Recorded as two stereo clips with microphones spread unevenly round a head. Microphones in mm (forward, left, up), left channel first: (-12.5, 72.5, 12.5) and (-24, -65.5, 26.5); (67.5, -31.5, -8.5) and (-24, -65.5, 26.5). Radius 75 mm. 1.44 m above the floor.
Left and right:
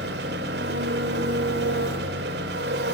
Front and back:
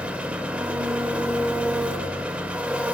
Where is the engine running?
90° right, 3 m.